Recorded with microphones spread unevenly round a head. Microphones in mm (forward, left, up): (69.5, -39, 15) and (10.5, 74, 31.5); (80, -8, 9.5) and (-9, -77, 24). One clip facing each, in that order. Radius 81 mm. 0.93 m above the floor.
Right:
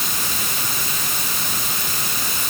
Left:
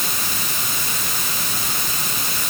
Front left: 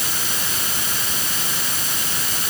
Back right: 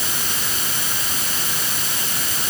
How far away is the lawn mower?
I don't hear a lawn mower.